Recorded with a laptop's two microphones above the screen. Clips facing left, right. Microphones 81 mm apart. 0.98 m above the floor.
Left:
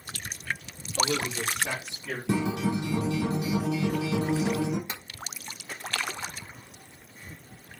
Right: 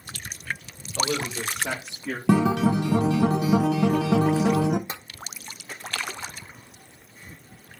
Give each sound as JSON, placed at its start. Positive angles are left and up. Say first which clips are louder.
{"t": 1.0, "sound": "a man speaking", "louder": "right 1 dB", "side_deg": -55, "distance_m": 1.7}
{"t": 2.3, "sound": "a guitar", "louder": "right 7 dB", "side_deg": -80, "distance_m": 0.5}
{"t": 4.9, "sound": "tapping", "louder": "right 3 dB", "side_deg": -35, "distance_m": 1.1}